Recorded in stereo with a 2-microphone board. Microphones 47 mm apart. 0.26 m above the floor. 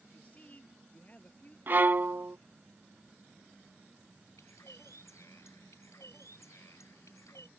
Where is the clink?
I don't hear a clink.